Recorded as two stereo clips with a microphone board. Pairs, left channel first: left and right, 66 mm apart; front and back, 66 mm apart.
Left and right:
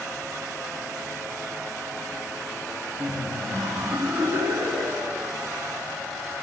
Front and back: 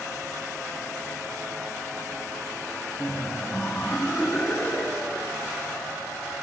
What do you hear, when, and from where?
3.0 s laughter: 65° right, 1.4 m